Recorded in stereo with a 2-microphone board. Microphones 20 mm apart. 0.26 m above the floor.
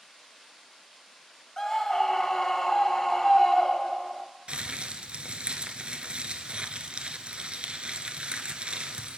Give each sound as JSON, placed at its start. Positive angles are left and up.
{"t": 1.6, "sound": "a scream", "side_deg": 20, "distance_m": 1.1}
{"t": 4.5, "sound": "crumpling", "side_deg": -55, "distance_m": 0.7}